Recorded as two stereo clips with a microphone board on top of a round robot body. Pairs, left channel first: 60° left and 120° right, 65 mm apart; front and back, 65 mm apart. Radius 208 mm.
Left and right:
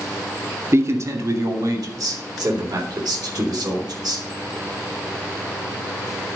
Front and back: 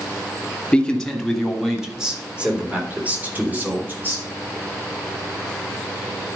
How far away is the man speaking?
About 2.5 m.